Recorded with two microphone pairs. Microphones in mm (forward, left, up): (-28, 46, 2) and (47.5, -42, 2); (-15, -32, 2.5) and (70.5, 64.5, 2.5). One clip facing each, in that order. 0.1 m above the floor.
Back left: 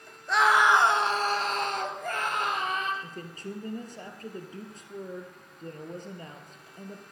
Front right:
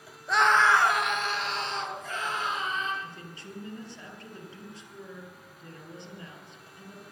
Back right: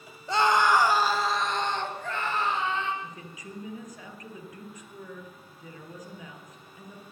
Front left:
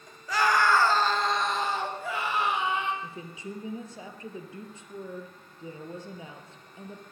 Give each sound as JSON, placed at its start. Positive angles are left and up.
{"t": 0.3, "sound": "a scream", "azimuth_deg": -135, "distance_m": 1.3}
{"t": 3.0, "sound": "a woman speaking", "azimuth_deg": 100, "distance_m": 2.0}